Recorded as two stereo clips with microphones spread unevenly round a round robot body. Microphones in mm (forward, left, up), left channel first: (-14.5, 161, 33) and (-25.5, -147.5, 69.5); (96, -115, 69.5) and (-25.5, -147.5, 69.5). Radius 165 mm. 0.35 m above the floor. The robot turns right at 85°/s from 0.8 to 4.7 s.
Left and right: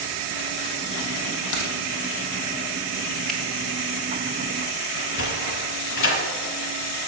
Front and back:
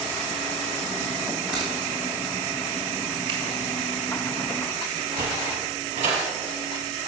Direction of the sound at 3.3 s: 170° left.